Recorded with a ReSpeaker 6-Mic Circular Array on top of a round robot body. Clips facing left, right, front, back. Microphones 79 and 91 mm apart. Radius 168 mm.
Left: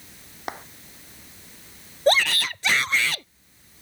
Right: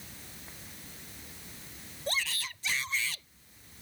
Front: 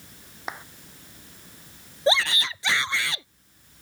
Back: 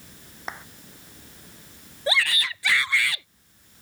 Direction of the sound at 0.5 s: 85° left.